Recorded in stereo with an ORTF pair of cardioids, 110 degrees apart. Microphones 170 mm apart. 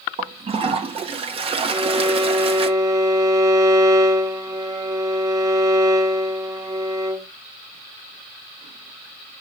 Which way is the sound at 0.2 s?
35° right.